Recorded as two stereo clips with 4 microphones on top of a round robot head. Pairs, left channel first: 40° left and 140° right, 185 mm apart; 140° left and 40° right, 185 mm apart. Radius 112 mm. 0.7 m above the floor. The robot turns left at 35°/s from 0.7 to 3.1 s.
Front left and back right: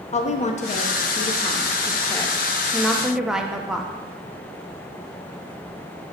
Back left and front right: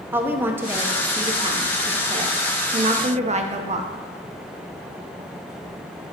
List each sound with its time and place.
0.1 s a woman speaking: 30° left, 1.0 m; by 3.9 s 55° right, 1.0 m